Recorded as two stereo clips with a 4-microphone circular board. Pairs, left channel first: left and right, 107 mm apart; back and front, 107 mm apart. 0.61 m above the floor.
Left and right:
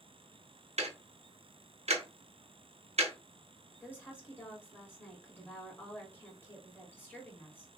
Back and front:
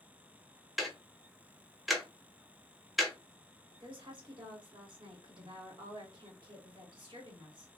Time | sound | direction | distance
0.8 | ticking | 90° right | 0.7 m
3.7 | a woman speaking | 25° left | 1.4 m